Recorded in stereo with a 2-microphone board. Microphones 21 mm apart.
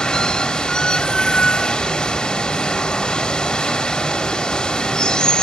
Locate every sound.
0.0 s running water: 45° left (ahead or behind), 1.0 m